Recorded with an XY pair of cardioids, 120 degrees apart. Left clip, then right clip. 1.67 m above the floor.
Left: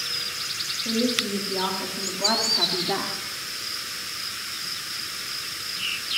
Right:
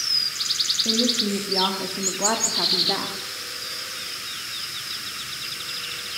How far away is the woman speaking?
About 1.8 m.